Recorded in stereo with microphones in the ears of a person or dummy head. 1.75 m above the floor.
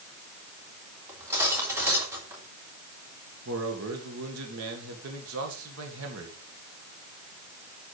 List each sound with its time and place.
1.1 s cutlery clinking: 15° right (ahead or behind), 3 m
3.5 s a man speaking: 80° right, 2 m